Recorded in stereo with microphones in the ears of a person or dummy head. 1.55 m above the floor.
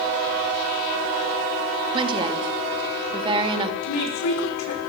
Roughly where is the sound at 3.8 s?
Left.